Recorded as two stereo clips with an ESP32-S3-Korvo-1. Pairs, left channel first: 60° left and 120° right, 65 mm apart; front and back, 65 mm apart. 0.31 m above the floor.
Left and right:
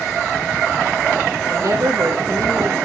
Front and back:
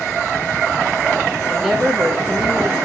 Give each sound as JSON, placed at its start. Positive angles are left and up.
{"t": 1.5, "sound": "a woman speaking", "azimuth_deg": -95, "distance_m": 5.5}